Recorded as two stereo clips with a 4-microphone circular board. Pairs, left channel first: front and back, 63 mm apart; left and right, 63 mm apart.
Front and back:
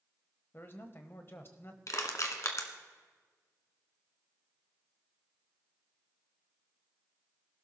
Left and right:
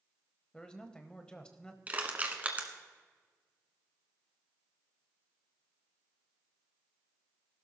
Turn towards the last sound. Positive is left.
turn(degrees=-30)